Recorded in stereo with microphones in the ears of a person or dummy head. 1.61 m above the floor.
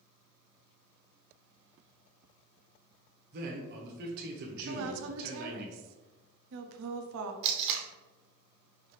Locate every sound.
3.3 s a man speaking: 50° right (ahead or behind), 0.9 m
4.7 s a woman speaking: 70° right (ahead or behind), 0.6 m
7.4 s tape being pulled: 35° right (ahead or behind), 0.6 m